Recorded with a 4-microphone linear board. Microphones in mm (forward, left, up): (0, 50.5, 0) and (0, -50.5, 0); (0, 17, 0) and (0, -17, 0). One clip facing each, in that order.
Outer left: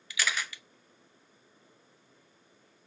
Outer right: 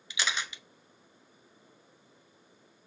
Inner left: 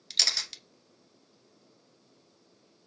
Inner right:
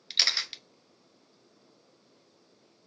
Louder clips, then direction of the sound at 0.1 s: Outer left 1 dB, inner right 2 dB; 20° right (ahead or behind).